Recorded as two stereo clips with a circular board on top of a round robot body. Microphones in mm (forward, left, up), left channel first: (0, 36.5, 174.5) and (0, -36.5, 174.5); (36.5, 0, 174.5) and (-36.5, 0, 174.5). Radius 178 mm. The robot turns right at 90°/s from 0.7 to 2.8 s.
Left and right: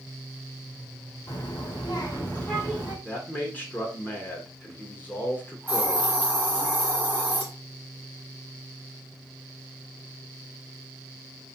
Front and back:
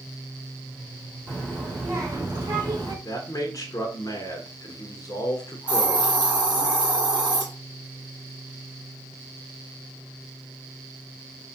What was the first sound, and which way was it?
A child speaking, 60° left.